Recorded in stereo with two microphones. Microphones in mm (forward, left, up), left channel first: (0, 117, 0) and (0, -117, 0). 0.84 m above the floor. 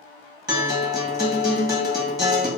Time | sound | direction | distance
0.5 | a guitar | 15° right (ahead or behind) | 1.1 m